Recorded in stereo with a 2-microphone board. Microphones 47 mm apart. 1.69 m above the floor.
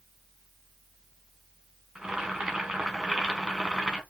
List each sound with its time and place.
1.9 s boiling: 15° right (ahead or behind), 1.4 m